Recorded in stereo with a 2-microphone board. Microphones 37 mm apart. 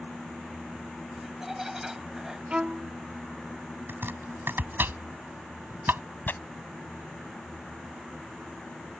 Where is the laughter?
10° right (ahead or behind); by 2.4 s 15° right (ahead or behind).